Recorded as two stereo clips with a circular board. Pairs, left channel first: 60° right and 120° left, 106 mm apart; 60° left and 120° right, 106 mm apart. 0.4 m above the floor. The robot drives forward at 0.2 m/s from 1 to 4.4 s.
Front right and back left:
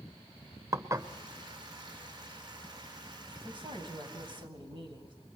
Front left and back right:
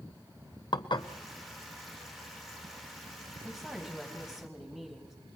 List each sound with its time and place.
0.7 s dishes clattering: 70° left, 0.8 m
3.5 s a woman speaking: 155° left, 3.5 m